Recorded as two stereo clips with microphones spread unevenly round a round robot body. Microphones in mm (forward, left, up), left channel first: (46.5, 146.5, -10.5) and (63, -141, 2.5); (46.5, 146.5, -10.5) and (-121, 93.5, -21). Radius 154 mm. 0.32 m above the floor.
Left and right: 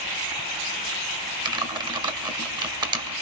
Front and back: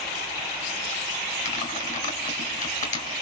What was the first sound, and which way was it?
Typing on a keyboard, 15° right.